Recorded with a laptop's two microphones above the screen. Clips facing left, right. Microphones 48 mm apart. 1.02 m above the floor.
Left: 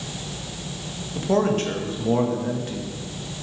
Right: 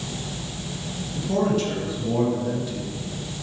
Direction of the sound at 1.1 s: 45° left (ahead or behind).